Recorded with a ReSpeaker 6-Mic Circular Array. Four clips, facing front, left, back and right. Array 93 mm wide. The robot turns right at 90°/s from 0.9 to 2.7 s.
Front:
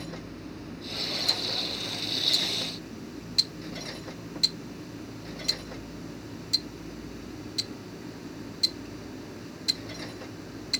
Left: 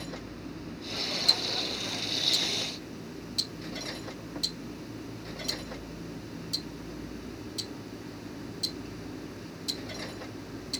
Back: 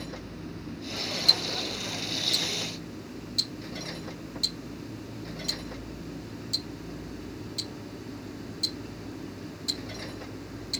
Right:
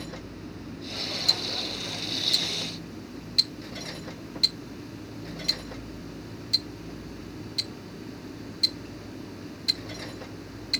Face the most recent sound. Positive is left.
turn(degrees=-50)